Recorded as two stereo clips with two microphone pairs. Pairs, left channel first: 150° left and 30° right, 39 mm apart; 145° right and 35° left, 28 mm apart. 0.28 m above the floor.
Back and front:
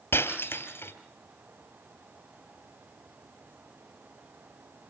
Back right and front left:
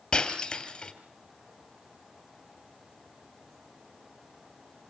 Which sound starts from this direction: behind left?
Breaking glass, at 0.1 s.